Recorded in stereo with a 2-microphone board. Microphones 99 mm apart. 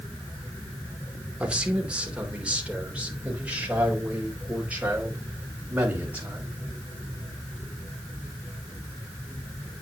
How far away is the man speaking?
About 2.5 m.